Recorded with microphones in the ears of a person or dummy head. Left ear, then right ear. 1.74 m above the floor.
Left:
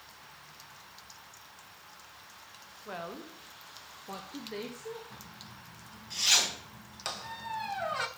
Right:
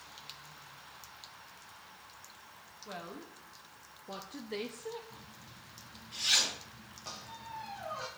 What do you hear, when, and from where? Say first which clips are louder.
2.9 s a woman speaking: left 4 dB; 25° left (ahead or behind), 1.5 m; by 5.0 s 20° right (ahead or behind), 1.1 m
5.1 s a zipper: left 4 dB; 70° left (ahead or behind), 6 m
7.0 s a squeak: left 8 dB; 40° left (ahead or behind), 0.8 m